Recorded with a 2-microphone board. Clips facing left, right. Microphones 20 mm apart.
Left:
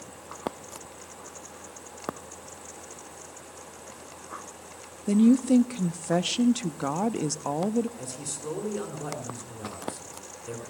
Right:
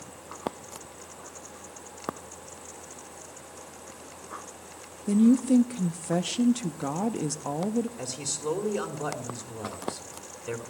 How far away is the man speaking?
About 2.0 m.